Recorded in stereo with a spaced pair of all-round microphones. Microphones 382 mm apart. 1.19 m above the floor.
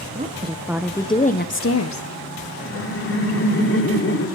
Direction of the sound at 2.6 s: 35° left (ahead or behind).